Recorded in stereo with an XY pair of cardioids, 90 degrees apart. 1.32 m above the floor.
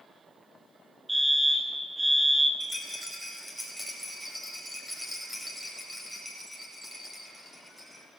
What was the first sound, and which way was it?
A fire alarm, 15° right.